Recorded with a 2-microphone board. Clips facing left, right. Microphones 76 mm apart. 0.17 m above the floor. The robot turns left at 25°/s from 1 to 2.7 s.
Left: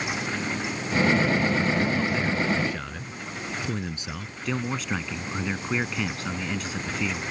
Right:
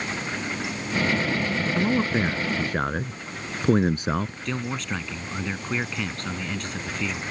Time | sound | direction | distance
1.8 | a man speaking | 30° right (ahead or behind) | ?
4.5 | a man speaking | 5° left (ahead or behind) | ?